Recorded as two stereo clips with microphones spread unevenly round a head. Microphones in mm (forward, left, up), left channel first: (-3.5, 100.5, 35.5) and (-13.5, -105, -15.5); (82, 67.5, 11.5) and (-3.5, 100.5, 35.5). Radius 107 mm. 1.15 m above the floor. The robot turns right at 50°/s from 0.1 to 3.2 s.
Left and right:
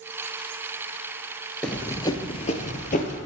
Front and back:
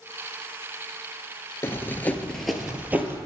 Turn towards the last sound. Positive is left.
turn(degrees=120)